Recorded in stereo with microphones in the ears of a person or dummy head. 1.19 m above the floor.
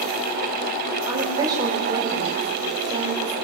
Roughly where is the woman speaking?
Centre.